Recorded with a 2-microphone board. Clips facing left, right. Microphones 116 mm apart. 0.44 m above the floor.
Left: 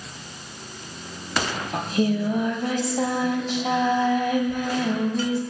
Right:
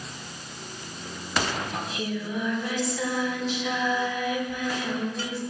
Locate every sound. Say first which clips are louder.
1.7 s singing: left 8 dB; 45° left (ahead or behind), 1.3 m